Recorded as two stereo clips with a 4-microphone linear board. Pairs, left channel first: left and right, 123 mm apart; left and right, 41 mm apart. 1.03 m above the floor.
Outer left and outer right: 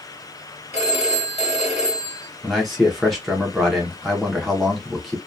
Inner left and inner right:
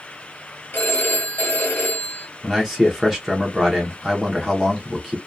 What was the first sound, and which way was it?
A phone ringing, 65° left (ahead or behind).